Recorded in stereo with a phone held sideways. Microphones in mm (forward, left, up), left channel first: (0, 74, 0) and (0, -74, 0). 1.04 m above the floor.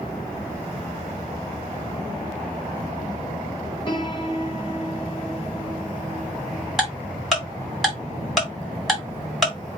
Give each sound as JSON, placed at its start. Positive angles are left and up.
{"t": 3.9, "sound": "a piano", "side_deg": 30, "distance_m": 1.3}
{"t": 6.8, "sound": "ticking", "side_deg": 0, "distance_m": 2.0}